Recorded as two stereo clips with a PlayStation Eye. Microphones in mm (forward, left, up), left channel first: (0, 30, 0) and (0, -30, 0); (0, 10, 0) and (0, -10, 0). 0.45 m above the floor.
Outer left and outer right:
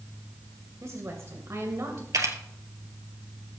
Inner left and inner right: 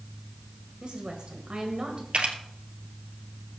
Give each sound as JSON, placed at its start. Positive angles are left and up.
{"t": 0.8, "sound": "a woman speaking", "side_deg": -50, "distance_m": 2.0}
{"t": 2.1, "sound": "a camera shutter", "side_deg": -65, "distance_m": 1.9}